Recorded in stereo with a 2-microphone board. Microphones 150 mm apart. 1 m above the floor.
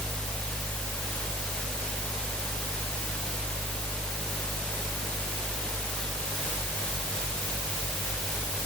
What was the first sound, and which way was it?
Only background noise.